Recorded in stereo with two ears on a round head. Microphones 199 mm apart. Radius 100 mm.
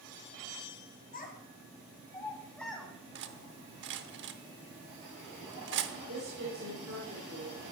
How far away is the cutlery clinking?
About 0.8 m.